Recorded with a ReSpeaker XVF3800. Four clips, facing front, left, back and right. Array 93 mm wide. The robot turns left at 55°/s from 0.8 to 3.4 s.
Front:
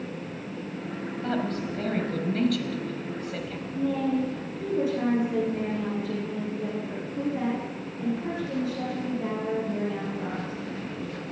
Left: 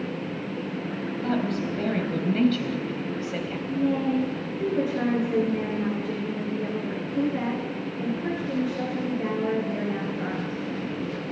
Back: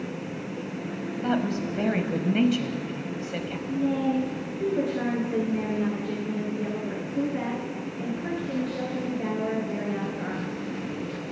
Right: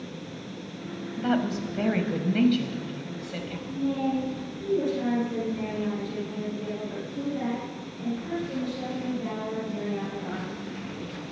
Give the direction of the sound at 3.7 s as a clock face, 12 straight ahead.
8 o'clock.